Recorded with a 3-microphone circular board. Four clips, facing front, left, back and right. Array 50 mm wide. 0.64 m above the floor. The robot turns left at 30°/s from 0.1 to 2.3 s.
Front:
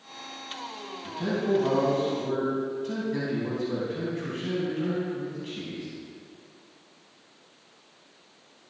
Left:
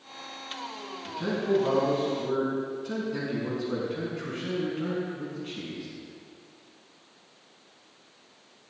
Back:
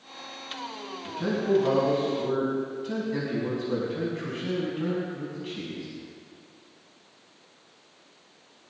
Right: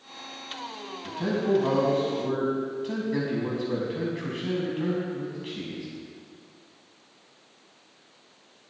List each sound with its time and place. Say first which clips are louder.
1.0 s a man speaking: right 2 dB, back 1 dB; 60° right, 5.5 m; by 5.9 s 100° right, 5.5 m